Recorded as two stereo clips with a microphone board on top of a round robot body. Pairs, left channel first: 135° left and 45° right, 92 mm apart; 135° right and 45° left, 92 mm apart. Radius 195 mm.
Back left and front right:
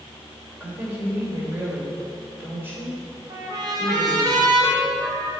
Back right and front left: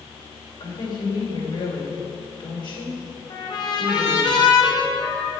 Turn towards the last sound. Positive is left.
turn(degrees=-90)